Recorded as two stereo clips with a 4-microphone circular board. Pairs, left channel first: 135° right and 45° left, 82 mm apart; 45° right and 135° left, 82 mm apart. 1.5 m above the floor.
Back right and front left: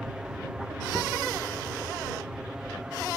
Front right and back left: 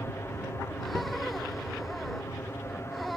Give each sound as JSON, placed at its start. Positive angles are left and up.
{"t": 0.0, "sound": "an aircraft", "azimuth_deg": -30}